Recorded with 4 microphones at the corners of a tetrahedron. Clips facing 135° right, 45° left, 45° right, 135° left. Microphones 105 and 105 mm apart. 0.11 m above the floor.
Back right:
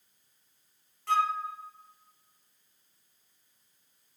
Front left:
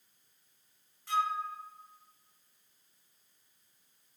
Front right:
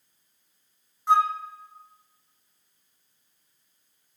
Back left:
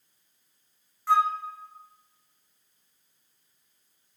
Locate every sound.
1.1 s a flute: 110° right, 0.5 m